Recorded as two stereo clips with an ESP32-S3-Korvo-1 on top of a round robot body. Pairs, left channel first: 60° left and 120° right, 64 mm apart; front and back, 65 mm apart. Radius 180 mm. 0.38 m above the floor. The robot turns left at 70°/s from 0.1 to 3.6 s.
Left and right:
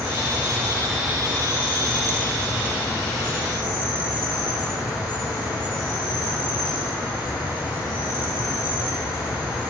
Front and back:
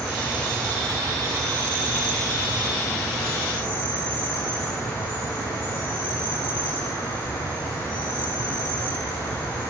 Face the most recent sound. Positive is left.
turn(degrees=40)